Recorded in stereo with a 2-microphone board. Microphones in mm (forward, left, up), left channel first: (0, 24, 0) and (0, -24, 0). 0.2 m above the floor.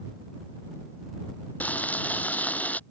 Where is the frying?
35° left (ahead or behind).